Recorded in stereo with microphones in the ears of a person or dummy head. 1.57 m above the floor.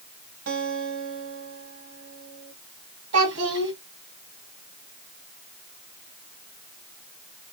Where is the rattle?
I don't hear a rattle.